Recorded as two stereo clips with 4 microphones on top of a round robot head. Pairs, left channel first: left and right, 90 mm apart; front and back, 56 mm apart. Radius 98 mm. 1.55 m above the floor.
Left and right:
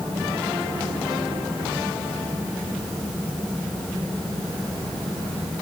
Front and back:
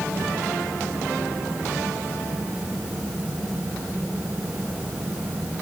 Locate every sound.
Only background noise.